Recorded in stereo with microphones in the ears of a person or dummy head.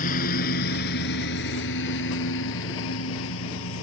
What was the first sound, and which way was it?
A lawn mower, 45° left (ahead or behind).